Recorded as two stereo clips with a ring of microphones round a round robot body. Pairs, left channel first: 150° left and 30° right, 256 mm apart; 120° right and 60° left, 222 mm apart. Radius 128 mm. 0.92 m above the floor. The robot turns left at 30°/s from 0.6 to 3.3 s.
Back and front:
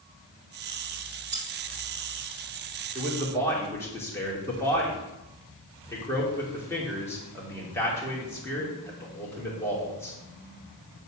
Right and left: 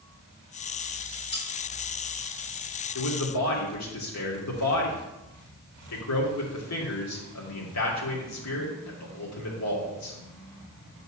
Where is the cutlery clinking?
80° right, 4 m; by 1.5 s 85° right, 4 m.